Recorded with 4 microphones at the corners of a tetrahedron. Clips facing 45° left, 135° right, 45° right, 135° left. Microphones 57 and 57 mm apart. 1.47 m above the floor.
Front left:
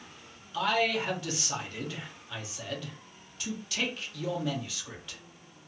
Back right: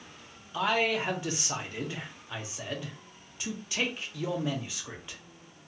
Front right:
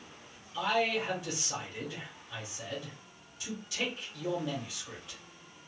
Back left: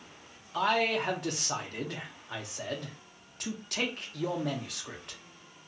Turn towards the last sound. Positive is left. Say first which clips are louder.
# even, back left 2 dB
turn(degrees=160)